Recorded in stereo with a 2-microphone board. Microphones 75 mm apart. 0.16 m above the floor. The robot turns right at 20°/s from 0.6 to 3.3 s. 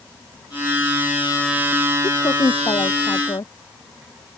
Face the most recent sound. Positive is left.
turn(degrees=75)  # may be behind; listen again after turning